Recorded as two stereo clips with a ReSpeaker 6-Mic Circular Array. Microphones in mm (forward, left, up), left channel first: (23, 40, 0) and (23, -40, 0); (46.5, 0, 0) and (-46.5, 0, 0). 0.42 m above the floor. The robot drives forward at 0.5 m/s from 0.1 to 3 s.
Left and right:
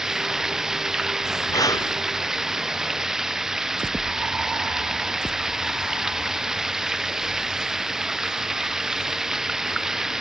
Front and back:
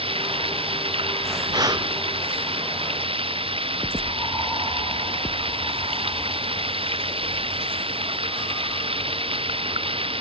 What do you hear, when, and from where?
0.0 s running water: 175° right
1.5 s breathing: 135° left